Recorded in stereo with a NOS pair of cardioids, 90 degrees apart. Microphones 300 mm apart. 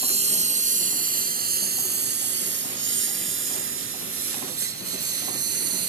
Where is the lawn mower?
20° right; by 5.9 s 55° right.